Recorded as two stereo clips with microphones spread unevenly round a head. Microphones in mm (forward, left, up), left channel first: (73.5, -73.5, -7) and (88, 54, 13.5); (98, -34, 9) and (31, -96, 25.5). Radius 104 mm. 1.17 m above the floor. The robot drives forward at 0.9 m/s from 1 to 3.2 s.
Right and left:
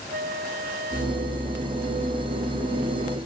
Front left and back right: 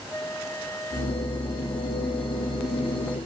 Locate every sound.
0.1 s a flute: 125° left